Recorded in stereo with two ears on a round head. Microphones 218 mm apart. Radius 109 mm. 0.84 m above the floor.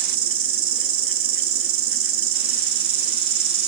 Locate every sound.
0.0 s an insect: 60° right (ahead or behind), 5.5 m